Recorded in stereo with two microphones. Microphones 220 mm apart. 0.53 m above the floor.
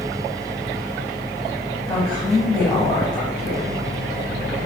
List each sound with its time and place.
1.9 s a woman speaking: 15° left (ahead or behind), 2 m